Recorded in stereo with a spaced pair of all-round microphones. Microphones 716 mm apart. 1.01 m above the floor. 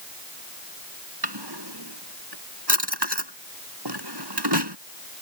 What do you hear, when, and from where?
1.2 s a drawer: 35° right (ahead or behind)